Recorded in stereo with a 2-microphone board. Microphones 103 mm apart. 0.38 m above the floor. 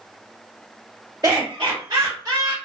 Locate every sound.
1.2 s laughter: 35° right (ahead or behind), 1.2 m